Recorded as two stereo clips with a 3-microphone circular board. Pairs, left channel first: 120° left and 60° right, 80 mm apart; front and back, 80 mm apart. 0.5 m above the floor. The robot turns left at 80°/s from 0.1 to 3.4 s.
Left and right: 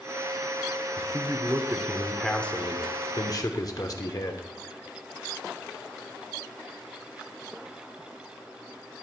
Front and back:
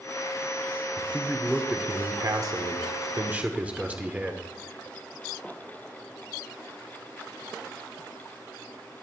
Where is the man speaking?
50° right, 1.0 m; by 4.5 s 115° left, 1.0 m.